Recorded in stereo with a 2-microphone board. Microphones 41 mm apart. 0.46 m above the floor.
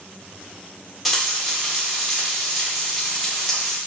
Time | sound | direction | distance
1.1 | frying | 5° right (ahead or behind) | 1.2 m